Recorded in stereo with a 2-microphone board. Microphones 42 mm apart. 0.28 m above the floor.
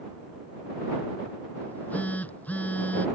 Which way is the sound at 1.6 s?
40° left (ahead or behind).